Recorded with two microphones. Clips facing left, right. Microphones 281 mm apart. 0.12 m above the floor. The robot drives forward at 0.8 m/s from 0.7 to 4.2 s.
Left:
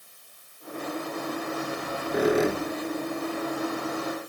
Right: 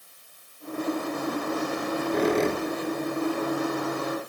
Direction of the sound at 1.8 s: 10° left (ahead or behind).